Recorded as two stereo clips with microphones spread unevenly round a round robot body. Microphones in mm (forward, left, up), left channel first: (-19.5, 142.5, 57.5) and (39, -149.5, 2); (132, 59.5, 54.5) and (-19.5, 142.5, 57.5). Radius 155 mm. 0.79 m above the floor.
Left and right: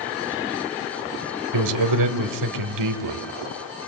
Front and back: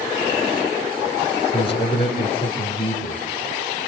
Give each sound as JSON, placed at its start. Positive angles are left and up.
{"t": 1.5, "sound": "a man speaking", "azimuth_deg": -100, "distance_m": 3.0}